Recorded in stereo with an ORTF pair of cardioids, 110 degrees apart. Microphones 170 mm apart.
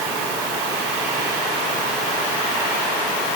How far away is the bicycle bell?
No bicycle bell in this recording.